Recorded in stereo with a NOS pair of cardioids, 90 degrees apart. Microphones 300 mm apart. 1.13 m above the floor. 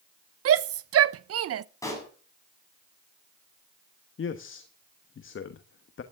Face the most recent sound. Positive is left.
turn(degrees=40)